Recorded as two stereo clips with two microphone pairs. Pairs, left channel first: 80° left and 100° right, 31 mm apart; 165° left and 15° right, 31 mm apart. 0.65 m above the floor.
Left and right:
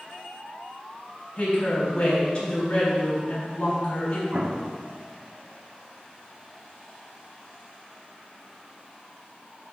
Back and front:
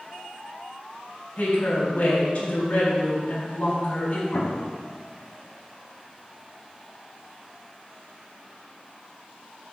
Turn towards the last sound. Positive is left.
turn(degrees=-155)